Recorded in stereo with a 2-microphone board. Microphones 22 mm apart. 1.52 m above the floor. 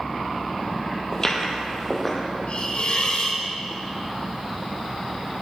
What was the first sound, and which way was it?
Footsteps, 25° left (ahead or behind).